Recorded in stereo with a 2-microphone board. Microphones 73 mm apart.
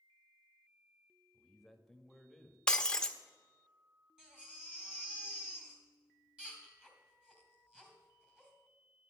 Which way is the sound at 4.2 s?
10° right (ahead or behind).